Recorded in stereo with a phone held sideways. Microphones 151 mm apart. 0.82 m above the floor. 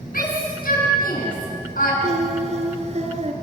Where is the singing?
50° right (ahead or behind), 2 m.